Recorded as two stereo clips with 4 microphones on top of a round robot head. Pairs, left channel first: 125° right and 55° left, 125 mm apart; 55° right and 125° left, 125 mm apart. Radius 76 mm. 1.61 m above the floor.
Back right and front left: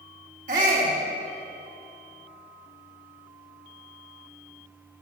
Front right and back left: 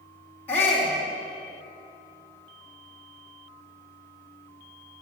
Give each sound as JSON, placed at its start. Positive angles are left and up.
{"t": 0.5, "sound": "a shout", "azimuth_deg": 25, "distance_m": 2.5}